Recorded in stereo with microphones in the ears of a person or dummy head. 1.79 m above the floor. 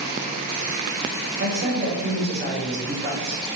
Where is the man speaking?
65° right (ahead or behind), 3 m.